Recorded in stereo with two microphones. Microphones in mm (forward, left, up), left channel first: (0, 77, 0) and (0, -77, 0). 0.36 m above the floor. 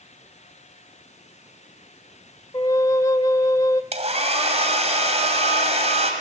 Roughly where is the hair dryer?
Right.